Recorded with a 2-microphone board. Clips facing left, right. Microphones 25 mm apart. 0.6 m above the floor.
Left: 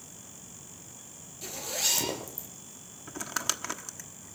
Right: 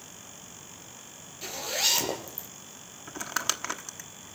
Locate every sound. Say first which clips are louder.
1.4 s a zipper: right 4 dB; 25° right (ahead or behind), 6.5 m
3.1 s crumpling: right 2 dB; 15° right (ahead or behind), 1.3 m